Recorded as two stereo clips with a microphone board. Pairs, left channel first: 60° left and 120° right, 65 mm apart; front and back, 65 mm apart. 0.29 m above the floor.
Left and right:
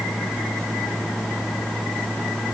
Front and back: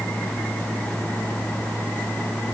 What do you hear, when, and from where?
Only background noise.